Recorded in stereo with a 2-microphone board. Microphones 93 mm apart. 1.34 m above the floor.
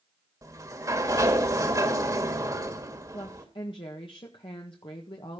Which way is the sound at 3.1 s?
60° left (ahead or behind).